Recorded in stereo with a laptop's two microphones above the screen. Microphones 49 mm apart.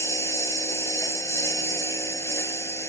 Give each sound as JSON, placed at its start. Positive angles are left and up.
{"t": 0.0, "sound": "a lawn mower", "side_deg": 80}